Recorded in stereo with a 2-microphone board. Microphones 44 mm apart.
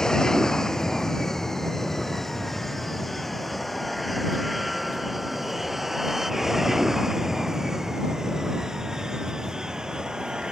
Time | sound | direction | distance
0.0 | an aircraft | 10° left (ahead or behind) | ?